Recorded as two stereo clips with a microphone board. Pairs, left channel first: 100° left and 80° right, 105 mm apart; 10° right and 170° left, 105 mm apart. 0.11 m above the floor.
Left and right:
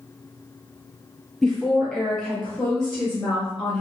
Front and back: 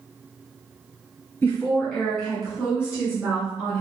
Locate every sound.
1.4 s a woman speaking: 15° left, 1.3 m; by 3.8 s 175° left, 1.4 m